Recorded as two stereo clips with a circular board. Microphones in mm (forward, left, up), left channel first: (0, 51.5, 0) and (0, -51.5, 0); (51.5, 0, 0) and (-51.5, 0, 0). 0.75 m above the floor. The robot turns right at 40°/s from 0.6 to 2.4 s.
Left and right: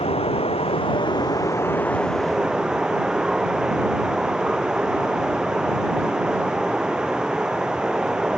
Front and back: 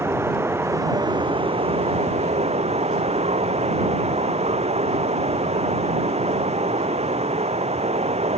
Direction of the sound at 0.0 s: 115° left.